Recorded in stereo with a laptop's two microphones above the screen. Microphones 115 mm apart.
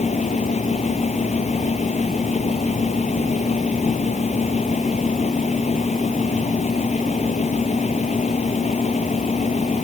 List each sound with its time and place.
0.0 s a fan: 80° left